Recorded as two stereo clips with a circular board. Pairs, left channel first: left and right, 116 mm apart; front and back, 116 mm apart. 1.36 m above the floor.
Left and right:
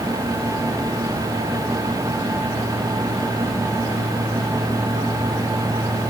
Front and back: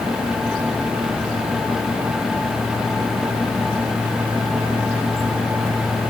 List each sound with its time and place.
Only background noise.